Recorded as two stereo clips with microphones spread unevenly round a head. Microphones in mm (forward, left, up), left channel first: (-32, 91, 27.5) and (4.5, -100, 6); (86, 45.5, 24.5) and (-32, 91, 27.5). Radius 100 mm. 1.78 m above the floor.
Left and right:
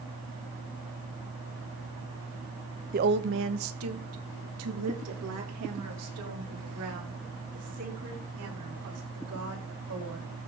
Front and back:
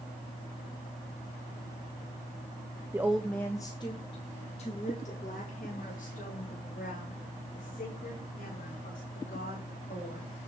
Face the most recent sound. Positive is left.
turn(degrees=-70)